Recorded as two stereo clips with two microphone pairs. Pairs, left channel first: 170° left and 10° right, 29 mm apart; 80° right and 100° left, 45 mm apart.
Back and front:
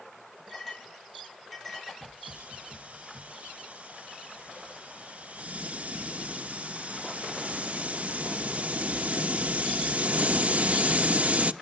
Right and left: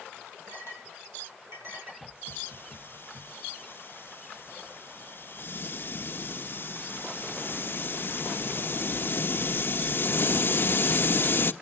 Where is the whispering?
I don't hear whispering.